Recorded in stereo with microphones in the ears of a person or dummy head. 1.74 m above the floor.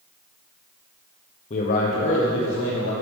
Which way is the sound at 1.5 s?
35° left (ahead or behind).